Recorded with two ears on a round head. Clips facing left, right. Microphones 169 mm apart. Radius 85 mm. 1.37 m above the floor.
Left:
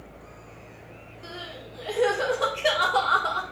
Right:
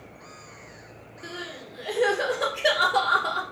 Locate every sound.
1.2 s crying: 15° right (ahead or behind), 2.5 m